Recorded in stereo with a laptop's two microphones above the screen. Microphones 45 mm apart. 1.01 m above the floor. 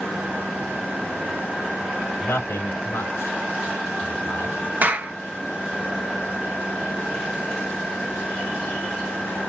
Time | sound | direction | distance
2.2 | a man speaking | 80° left | 3.5 m
4.8 | a clap | 40° right (ahead or behind) | 0.9 m